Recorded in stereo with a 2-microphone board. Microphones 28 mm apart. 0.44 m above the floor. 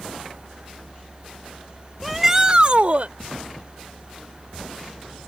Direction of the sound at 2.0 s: 5° left (ahead or behind).